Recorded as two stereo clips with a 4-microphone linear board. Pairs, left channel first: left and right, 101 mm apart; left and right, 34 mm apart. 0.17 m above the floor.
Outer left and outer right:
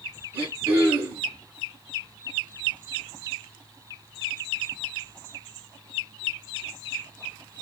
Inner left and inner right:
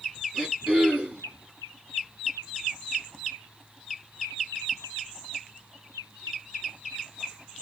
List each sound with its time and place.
0.3 s throat clearing: 20° right (ahead or behind), 1.8 m